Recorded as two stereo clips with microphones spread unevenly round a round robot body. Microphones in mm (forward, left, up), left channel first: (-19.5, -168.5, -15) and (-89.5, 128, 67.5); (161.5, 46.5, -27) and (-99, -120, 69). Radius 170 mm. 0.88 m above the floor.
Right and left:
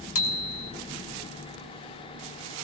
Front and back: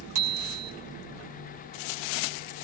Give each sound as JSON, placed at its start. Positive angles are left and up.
{"t": 0.1, "sound": "a bicycle bell", "azimuth_deg": -125, "distance_m": 3.0}